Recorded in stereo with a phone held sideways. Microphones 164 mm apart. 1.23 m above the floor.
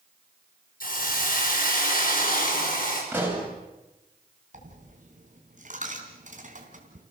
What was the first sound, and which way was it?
A hiss, 60° left (ahead or behind).